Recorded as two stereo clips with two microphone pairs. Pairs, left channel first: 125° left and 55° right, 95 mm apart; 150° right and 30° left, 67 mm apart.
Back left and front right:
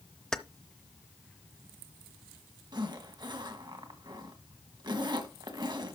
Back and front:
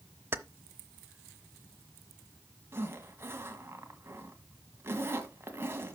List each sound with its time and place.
0.3 s keys jangling: 45° left, 0.6 m
2.7 s a zipper: 25° right, 1.6 m